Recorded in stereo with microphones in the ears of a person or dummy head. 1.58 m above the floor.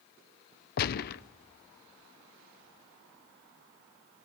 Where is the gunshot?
55° left (ahead or behind), 0.7 m.